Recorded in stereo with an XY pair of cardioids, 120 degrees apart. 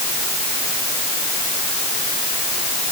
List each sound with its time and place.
Only background noise.